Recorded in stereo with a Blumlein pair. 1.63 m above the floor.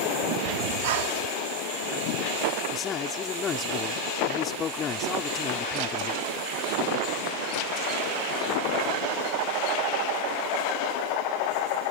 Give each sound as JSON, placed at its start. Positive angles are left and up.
{"t": 0.5, "sound": "breathing", "azimuth_deg": -50}
{"t": 2.7, "sound": "a man speaking", "azimuth_deg": 25}